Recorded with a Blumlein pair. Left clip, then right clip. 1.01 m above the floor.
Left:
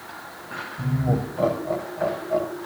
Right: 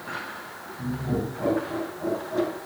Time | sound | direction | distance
0.8 | laughter | 50° left | 6 m